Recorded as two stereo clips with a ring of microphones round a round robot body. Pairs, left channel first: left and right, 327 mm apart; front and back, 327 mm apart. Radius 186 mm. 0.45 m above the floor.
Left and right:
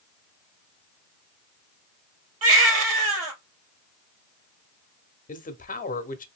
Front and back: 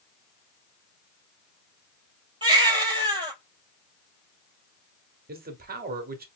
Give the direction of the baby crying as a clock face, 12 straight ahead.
4 o'clock.